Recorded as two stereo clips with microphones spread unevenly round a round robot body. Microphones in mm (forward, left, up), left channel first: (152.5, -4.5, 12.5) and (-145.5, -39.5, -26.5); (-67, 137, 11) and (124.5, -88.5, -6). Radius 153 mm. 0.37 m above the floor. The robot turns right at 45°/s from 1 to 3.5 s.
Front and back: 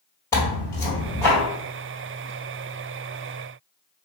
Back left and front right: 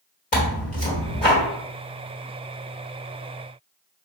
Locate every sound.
0.3 s tearing paper: 95° left, 1.5 m; by 1.4 s 110° left, 1.5 m